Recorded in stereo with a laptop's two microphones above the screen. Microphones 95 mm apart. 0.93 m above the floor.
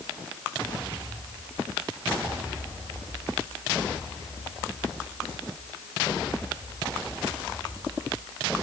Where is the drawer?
I don't hear a drawer.